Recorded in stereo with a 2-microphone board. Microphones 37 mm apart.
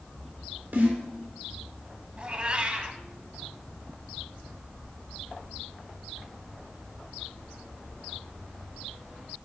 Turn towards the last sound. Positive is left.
turn(degrees=-30)  # may be behind; listen again after turning